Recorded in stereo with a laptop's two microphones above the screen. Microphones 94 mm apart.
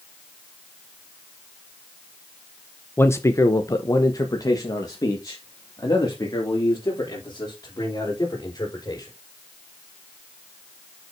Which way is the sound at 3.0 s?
25° left (ahead or behind).